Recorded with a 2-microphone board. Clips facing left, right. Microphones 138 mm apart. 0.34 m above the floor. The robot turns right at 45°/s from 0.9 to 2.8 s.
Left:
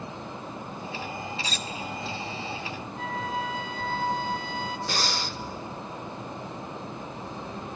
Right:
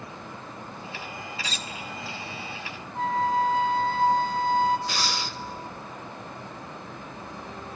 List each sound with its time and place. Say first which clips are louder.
1.4 s cutlery clinking: left 2 dB; 40° left (ahead or behind), 0.8 m; by 1.7 s 35° left (ahead or behind), 0.8 m
3.0 s a flute: right 8 dB; 40° right (ahead or behind), 0.7 m
4.9 s breathing: even; 40° left (ahead or behind), 0.6 m